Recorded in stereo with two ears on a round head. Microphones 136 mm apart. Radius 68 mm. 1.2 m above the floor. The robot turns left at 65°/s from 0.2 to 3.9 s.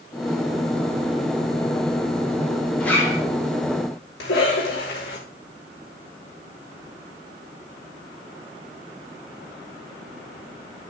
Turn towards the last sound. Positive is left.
turn(degrees=80)